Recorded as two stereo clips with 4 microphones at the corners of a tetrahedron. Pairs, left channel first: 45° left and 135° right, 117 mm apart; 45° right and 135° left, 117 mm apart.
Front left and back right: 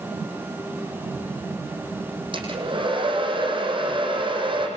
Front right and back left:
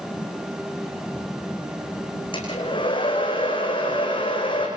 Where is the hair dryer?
90° right, 7.5 m.